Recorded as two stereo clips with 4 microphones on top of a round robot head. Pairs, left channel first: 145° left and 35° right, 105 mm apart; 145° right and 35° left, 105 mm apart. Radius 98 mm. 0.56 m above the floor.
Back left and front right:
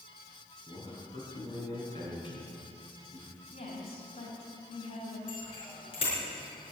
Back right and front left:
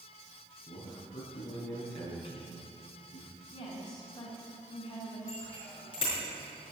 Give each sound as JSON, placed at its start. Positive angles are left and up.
{"t": 0.7, "sound": "a man speaking", "azimuth_deg": -175, "distance_m": 5.5}
{"t": 3.5, "sound": "a woman speaking", "azimuth_deg": 170, "distance_m": 4.5}
{"t": 5.3, "sound": "a bicycle bell", "azimuth_deg": 180, "distance_m": 5.5}